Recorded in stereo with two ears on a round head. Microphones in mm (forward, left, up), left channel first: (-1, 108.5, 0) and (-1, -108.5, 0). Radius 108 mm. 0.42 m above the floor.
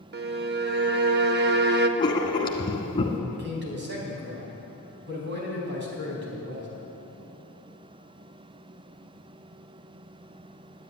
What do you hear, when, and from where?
0.1 s a violin: 45° right (ahead or behind), 0.7 m
2.0 s writing: 20° left (ahead or behind), 1.5 m
3.3 s a man speaking: 50° right (ahead or behind), 4 m